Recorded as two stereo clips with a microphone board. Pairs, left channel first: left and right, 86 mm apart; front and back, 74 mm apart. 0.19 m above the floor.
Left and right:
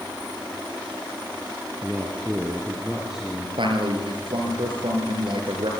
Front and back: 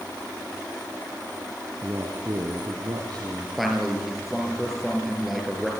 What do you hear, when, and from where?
1.8 s a man speaking: 165° right, 1.8 m; by 3.5 s 175° right, 3.5 m
3.6 s a man speaking: 90° right, 4 m